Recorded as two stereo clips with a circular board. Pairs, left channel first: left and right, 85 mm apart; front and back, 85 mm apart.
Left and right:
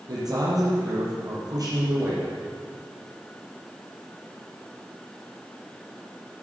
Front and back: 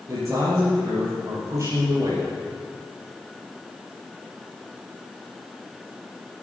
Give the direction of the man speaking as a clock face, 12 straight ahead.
4 o'clock.